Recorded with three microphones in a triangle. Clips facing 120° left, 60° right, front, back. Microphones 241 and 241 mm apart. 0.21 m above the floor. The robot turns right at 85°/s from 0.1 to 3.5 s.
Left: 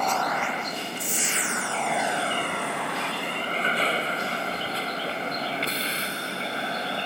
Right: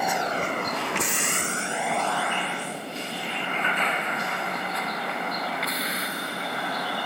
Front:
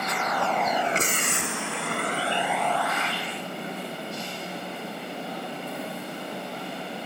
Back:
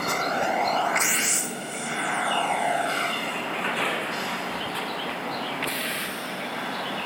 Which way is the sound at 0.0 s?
140° right.